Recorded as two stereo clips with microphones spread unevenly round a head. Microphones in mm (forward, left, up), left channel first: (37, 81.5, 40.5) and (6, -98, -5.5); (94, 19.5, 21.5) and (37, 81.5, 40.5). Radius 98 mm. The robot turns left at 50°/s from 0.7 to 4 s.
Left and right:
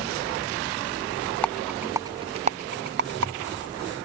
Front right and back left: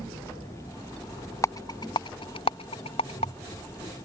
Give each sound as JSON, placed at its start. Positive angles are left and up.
{"t": 1.4, "sound": "a rattle", "azimuth_deg": 10}